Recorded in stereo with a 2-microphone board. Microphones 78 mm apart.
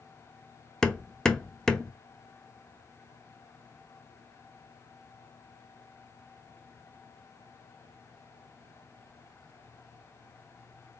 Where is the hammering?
10° left (ahead or behind), 0.6 m.